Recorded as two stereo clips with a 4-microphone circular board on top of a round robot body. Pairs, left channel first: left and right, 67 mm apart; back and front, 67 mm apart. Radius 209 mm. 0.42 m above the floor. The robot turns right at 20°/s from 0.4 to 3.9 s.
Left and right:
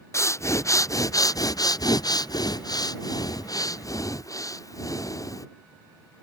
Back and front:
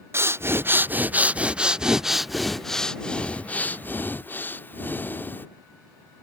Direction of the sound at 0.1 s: 50° left.